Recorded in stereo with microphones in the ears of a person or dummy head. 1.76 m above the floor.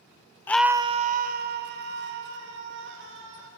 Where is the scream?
15° left (ahead or behind), 0.6 m; by 3.5 s 70° right (ahead or behind), 4 m.